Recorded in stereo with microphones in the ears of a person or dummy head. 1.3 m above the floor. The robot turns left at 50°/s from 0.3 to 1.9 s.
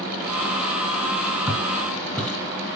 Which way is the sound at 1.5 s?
10° right (ahead or behind).